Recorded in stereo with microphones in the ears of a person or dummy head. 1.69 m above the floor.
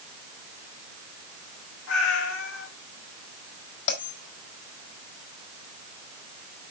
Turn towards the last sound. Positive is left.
turn(degrees=55)  # may be behind; listen again after turning